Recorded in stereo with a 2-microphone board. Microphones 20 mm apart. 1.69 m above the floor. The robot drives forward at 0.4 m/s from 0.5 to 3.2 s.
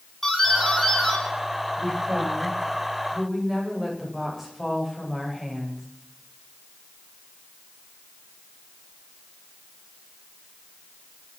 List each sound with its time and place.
0.2 s a doorbell: 10° left (ahead or behind), 6 m
1.8 s a woman speaking: 5° left (ahead or behind), 9.5 m